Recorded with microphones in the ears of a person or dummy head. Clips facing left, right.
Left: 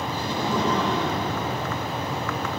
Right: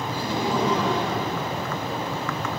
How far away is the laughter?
About 3.5 m.